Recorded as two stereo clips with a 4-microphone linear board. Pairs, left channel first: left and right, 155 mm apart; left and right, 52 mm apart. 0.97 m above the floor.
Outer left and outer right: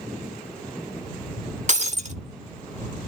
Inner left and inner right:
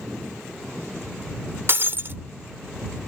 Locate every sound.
1.7 s breaking glass: 45° right (ahead or behind)